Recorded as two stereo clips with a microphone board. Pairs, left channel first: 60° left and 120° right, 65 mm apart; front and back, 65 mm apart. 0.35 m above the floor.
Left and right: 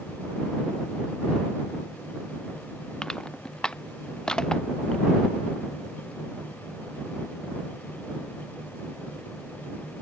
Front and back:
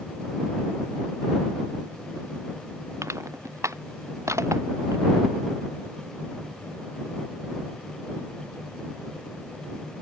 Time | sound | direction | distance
3.0 | crushing | 140° left | ?